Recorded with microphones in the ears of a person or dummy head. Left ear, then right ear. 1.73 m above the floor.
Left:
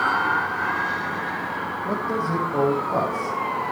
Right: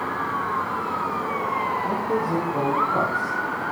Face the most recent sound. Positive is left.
turn(degrees=50)  # may be behind; listen again after turning